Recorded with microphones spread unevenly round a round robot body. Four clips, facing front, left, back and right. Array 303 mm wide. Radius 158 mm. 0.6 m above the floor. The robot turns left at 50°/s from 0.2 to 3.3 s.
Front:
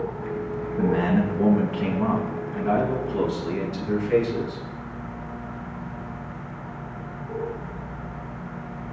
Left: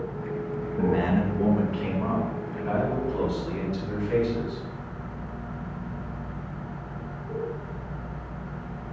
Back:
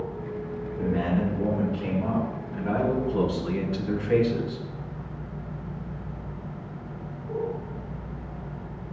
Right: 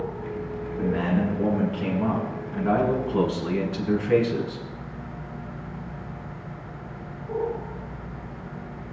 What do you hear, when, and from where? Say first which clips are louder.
0.8 s a man speaking: left 1 dB, front 4 dB; 45° left, 6 m; by 4.7 s 80° right, 6 m